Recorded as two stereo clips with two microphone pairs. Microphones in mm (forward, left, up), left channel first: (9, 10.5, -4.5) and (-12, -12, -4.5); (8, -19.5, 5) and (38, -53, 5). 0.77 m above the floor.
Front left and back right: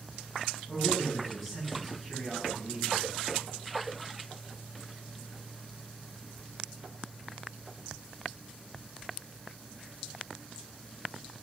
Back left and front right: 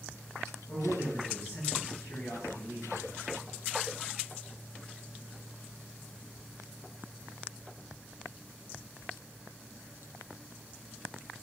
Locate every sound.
0.7 s a man speaking: 135° left, 6 m